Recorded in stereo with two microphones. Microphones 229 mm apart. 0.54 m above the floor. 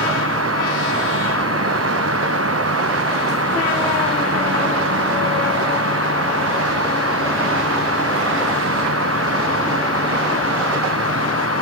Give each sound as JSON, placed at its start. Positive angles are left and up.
{"t": 0.0, "sound": "an insect", "side_deg": -80}